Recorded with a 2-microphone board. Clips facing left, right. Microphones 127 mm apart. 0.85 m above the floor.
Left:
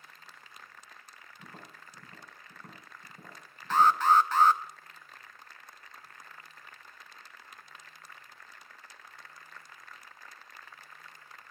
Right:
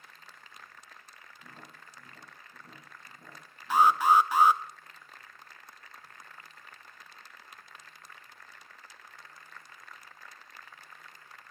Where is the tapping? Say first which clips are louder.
Left 2 dB; 75° left (ahead or behind), 3 m.